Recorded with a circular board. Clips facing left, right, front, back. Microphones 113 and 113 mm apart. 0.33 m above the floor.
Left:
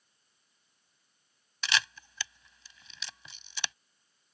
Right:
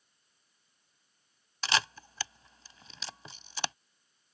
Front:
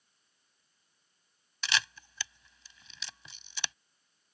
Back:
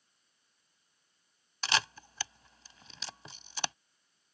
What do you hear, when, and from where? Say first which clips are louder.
1.6 s a camera shutter: right 2 dB, back 2 dB; 135° right